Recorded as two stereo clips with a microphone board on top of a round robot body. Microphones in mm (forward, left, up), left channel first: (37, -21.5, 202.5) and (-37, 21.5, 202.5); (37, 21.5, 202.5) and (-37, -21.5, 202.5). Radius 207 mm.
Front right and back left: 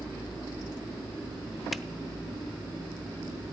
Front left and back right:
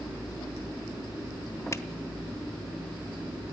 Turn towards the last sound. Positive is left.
turn(degrees=60)